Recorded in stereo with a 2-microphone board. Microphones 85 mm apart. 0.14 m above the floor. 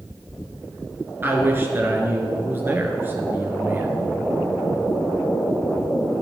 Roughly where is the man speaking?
Right.